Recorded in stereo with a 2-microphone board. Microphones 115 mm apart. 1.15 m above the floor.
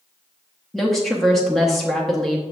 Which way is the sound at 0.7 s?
Centre (ahead or behind).